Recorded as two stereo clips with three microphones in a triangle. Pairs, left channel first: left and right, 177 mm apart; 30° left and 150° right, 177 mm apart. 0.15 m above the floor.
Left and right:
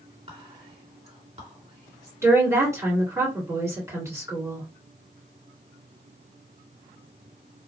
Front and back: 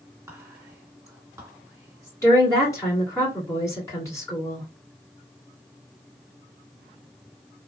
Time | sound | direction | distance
0.3 | whispering | 85° right | 1.9 m
2.2 | a woman speaking | 30° right | 1.9 m